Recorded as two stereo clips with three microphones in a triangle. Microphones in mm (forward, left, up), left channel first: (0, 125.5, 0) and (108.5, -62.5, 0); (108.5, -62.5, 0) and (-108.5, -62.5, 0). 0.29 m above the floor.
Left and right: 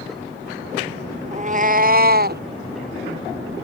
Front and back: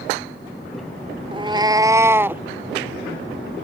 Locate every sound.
1.3 s a cat meowing: 115° right; by 2.4 s 100° right